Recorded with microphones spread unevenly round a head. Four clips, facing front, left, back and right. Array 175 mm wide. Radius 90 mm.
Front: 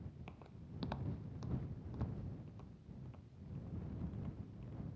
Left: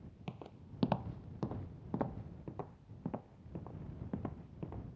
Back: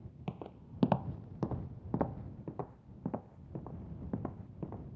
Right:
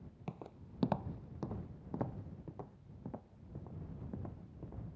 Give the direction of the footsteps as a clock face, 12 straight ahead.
6 o'clock.